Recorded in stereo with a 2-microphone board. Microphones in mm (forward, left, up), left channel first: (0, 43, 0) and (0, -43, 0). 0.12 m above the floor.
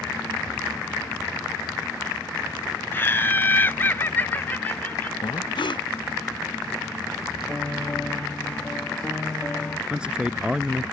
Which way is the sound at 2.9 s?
25° left (ahead or behind).